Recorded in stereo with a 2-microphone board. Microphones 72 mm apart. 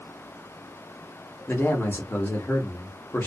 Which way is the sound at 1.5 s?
30° left (ahead or behind).